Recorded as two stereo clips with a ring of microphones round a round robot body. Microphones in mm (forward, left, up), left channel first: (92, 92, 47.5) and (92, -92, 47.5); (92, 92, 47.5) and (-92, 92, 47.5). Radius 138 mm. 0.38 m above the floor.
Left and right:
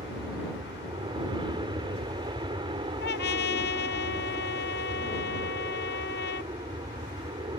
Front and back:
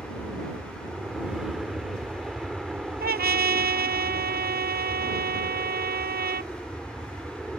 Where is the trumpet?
145° left.